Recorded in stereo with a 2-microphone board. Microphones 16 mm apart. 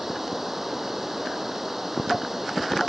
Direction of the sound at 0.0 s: 20° right (ahead or behind).